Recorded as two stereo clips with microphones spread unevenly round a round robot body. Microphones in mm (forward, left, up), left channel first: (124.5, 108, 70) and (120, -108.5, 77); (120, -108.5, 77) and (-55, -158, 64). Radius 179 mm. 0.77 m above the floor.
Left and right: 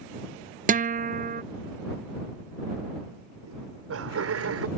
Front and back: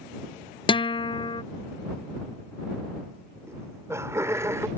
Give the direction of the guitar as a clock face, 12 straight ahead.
2 o'clock.